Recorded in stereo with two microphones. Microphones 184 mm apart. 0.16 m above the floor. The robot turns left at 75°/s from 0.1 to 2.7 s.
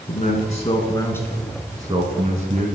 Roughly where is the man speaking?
Left.